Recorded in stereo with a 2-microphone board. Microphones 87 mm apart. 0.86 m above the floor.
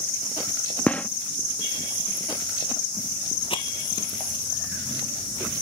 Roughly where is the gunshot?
Centre.